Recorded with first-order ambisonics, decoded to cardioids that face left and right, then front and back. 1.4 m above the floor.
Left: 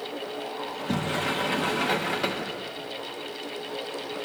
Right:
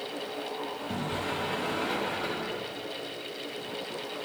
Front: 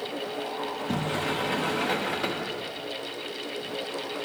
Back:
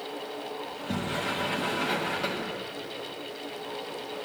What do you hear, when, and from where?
0.7 s a sliding door: 70° left, 0.9 m